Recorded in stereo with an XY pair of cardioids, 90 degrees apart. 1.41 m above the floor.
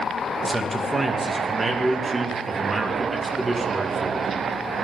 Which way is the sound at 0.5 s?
20° right.